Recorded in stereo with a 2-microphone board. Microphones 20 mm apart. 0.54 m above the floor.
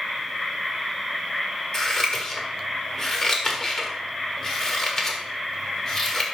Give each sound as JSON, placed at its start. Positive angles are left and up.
{"t": 1.7, "sound": "scissors", "side_deg": 20, "distance_m": 1.8}